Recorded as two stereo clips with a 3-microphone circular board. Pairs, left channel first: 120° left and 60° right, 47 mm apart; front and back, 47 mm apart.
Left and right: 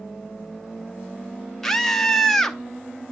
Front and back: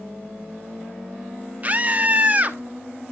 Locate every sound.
1.6 s a scream: 160° right, 1.0 m